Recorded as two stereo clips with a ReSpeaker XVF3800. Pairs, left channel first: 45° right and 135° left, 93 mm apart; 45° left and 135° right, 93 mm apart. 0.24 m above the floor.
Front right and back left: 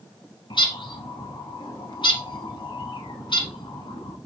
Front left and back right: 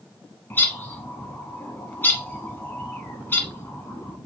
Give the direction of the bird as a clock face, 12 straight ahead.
1 o'clock.